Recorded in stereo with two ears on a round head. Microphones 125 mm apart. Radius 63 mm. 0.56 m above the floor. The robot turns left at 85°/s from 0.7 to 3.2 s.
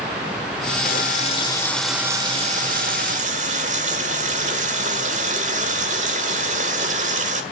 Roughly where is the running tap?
Left.